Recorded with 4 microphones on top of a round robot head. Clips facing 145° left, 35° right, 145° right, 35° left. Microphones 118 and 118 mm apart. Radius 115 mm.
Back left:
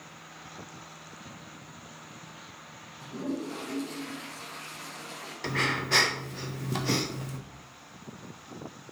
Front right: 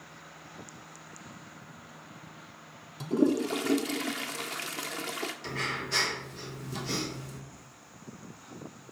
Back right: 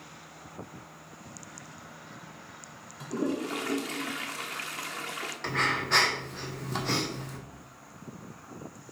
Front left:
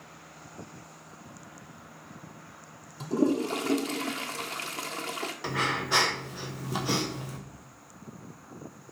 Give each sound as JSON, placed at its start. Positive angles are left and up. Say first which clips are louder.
{"t": 3.0, "sound": "a toilet flushing", "louder": "front right 9 dB, front left 5 dB", "azimuth_deg": -25, "distance_m": 0.6}
{"t": 5.4, "sound": "breathing", "louder": "back left 5 dB, back right 1 dB", "azimuth_deg": 115, "distance_m": 1.1}